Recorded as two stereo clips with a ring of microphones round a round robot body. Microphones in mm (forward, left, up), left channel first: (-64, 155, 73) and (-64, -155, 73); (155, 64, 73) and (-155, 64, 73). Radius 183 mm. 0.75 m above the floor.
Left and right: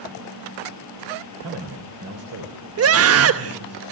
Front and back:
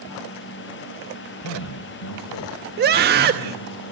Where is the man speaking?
45° right, 3 m.